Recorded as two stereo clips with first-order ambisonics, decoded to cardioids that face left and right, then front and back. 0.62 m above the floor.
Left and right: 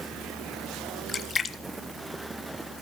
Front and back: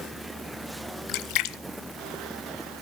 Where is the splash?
20° left, 0.8 m.